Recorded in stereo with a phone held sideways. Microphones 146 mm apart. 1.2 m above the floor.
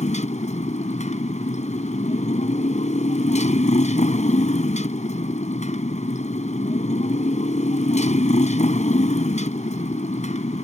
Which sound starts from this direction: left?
A motorcycle, at 0.0 s.